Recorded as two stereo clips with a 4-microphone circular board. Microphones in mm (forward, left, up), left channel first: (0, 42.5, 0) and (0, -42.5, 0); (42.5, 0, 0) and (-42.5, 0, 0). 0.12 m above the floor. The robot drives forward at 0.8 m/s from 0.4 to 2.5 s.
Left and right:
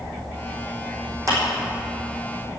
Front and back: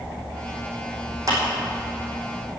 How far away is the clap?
About 5 m.